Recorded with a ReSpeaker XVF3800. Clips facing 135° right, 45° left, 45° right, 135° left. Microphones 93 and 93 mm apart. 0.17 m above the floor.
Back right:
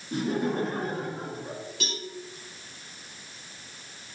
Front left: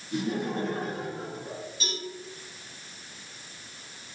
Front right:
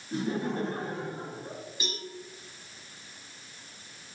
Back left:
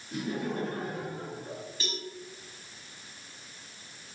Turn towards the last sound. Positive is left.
turn(degrees=-120)